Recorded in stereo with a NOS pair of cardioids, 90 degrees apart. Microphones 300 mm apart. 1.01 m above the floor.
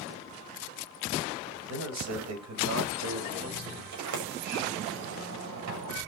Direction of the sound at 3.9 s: 65° right.